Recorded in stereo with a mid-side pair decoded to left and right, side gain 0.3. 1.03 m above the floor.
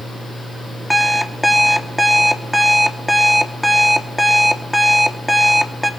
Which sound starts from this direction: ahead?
An alarm clock, at 0.9 s.